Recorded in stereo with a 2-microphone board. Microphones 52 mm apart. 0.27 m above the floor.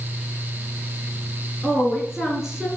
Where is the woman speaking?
Centre (ahead or behind), 4 m; by 2.7 s 15° right (ahead or behind), 4 m.